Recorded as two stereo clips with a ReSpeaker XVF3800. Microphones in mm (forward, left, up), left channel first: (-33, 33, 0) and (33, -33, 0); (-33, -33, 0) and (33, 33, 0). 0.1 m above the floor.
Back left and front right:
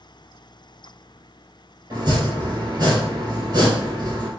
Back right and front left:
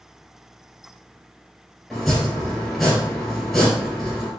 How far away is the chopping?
About 2.5 m.